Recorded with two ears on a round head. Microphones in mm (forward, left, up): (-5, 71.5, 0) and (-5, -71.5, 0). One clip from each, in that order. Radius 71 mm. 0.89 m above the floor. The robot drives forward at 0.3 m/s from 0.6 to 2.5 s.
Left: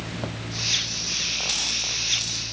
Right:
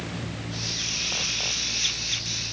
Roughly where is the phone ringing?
No phone ringing in this recording.